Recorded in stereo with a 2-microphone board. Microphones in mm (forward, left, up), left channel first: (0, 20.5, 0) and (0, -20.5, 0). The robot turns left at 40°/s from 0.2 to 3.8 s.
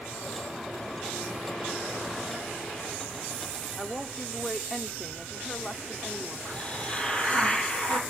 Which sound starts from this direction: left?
A hiss, at 6.5 s.